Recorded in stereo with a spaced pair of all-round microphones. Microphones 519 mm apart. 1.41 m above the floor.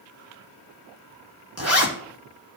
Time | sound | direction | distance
1.6 | a zipper | 30° right (ahead or behind) | 2.5 m